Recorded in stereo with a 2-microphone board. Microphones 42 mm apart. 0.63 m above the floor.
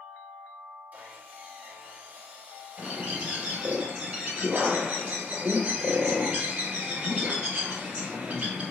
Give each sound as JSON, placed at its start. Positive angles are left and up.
{"t": 0.9, "sound": "sawing", "side_deg": -40, "distance_m": 1.5}
{"t": 2.8, "sound": "a bird", "side_deg": -35, "distance_m": 1.9}